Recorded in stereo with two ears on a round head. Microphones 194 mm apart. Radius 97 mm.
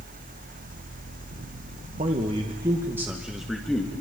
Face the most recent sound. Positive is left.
turn(degrees=5)  # may be behind; listen again after turning